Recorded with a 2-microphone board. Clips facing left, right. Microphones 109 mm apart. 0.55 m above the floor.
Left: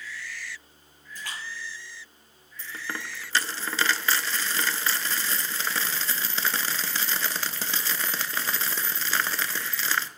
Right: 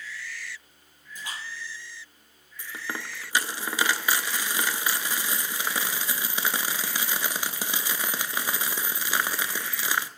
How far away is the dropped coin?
About 0.5 m.